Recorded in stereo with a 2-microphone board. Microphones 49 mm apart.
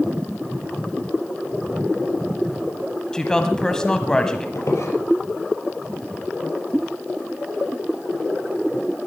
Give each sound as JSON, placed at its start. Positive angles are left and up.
{"t": 3.1, "sound": "a woman speaking", "side_deg": 10, "distance_m": 1.5}
{"t": 4.5, "sound": "a squeak", "side_deg": 70, "distance_m": 4.0}